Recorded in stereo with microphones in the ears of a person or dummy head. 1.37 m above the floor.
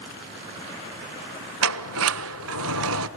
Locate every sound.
1.6 s a sliding door: 75° right (ahead or behind), 0.9 m